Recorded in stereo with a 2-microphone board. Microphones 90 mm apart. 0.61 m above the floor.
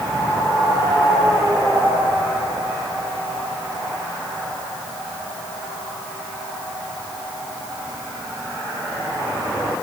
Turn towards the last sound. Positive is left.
No sound to turn to.